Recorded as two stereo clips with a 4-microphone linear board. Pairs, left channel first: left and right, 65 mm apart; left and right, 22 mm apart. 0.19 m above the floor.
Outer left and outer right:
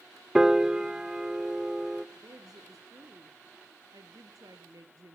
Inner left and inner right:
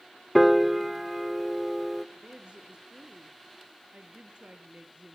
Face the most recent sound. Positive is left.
turn(degrees=-65)  # may be behind; listen again after turning